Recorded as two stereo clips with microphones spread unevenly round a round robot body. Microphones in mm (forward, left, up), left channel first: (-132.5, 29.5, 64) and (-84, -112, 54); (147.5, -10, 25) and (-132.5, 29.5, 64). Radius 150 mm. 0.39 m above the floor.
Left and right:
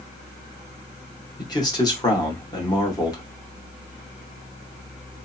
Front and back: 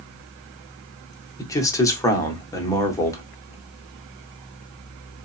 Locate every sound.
1.4 s a man speaking: 55° left, 0.9 m